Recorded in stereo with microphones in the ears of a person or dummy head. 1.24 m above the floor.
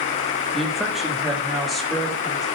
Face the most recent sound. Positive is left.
turn(degrees=0)  # may be behind; listen again after turning